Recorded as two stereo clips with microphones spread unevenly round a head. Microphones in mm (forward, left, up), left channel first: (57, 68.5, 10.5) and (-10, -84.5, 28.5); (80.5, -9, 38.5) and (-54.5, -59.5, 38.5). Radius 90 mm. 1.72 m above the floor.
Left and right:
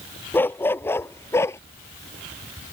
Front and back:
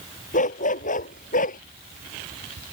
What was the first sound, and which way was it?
A dog barking, 15° right.